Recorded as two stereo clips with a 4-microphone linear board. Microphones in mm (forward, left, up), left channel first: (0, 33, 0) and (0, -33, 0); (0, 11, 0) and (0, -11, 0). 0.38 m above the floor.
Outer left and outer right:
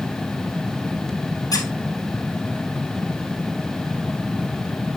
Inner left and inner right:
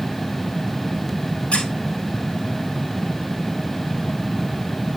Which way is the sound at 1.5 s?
70° left (ahead or behind).